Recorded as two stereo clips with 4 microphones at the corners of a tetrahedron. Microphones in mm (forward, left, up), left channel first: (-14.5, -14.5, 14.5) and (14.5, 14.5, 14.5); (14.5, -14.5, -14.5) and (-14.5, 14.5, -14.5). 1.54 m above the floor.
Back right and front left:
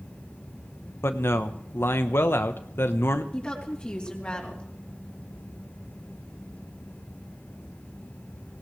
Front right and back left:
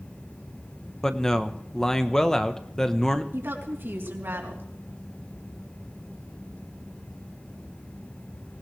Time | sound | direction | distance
1.0 | a man speaking | 120° right | 1.1 m
3.3 | a woman speaking | 160° left | 3.5 m